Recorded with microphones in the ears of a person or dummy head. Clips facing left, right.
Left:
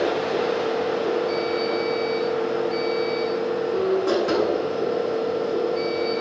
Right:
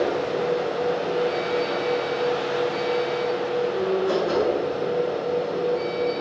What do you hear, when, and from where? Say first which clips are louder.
0.0 s a machine running: left 1 dB; 65° left (ahead or behind), 7.5 m